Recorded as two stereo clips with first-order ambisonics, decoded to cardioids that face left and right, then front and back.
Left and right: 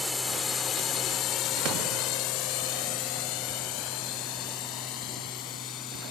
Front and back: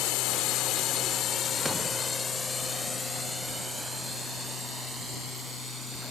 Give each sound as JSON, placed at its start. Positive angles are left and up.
{"t": 0.0, "sound": "a drone", "azimuth_deg": 10}